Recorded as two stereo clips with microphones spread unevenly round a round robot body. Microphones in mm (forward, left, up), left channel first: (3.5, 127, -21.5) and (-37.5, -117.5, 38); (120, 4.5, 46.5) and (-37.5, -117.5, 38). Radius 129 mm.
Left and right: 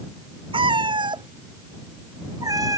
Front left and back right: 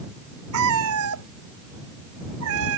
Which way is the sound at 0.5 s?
170° right.